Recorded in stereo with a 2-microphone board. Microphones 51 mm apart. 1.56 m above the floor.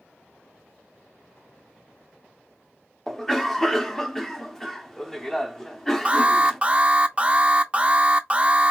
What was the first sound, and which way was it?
A cough, 5° left (ahead or behind).